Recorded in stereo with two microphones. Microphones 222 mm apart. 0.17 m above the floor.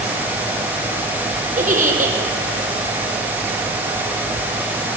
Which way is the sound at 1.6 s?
35° right (ahead or behind).